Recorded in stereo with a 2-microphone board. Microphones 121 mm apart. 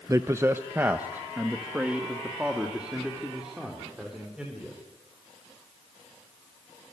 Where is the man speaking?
25° right (ahead or behind), 0.7 m; by 4.8 s 5° right (ahead or behind), 4.5 m.